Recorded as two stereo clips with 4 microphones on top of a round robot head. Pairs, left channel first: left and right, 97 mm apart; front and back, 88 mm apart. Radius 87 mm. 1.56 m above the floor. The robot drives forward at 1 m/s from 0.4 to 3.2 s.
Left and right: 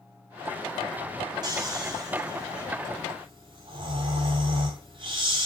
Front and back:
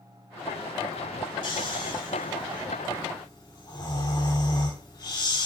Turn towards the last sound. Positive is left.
turn(degrees=-55)